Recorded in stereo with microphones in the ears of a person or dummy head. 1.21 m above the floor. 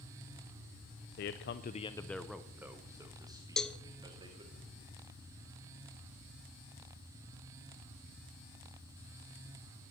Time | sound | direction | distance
1.2 | a man speaking | 55° left (ahead or behind) | 0.7 m
3.6 | a cowbell | 5° left (ahead or behind) | 0.8 m